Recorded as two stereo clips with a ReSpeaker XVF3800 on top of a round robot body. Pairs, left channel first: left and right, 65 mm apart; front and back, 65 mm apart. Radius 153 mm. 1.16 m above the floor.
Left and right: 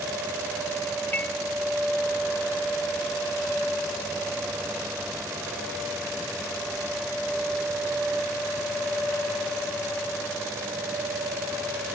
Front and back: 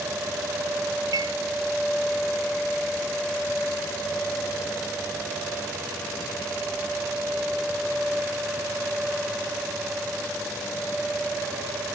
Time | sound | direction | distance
1.1 | dishes clattering | 155° left | ?